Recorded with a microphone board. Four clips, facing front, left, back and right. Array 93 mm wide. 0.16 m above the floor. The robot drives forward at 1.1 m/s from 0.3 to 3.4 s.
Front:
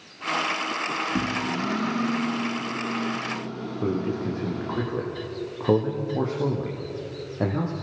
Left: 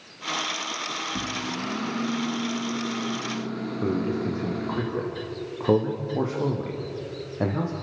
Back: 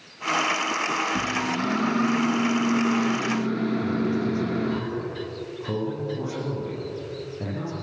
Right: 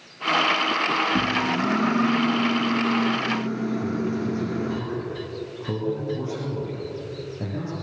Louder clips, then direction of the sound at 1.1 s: Right 8 dB, back 1 dB; 55° right.